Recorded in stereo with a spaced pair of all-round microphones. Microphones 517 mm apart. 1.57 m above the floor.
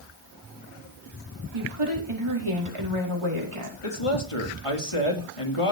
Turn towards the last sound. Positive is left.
turn(degrees=80)